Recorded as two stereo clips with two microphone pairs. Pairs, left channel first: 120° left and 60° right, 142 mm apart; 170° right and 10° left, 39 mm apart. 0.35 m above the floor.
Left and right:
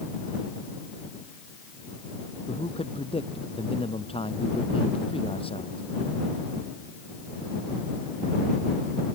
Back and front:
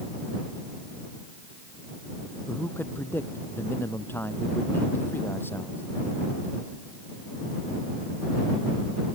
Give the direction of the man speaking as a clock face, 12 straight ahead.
6 o'clock.